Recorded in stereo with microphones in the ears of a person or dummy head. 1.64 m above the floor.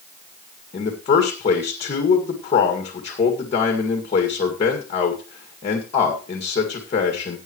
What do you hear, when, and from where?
0.7 s a man speaking: 35° left (ahead or behind), 2.0 m